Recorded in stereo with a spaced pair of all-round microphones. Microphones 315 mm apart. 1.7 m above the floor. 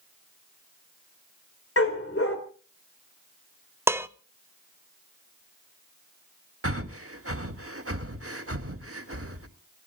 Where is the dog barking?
45° left (ahead or behind), 3 m.